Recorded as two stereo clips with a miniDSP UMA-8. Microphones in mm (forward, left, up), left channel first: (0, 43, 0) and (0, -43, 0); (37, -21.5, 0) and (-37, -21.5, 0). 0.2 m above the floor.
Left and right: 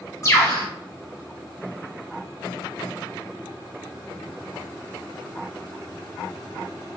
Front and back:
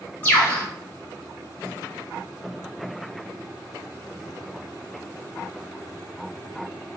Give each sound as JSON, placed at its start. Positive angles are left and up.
{"t": 0.2, "sound": "a bird", "azimuth_deg": 60, "distance_m": 2.0}